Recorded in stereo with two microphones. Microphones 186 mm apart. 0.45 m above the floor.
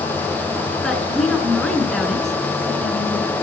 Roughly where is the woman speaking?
Centre.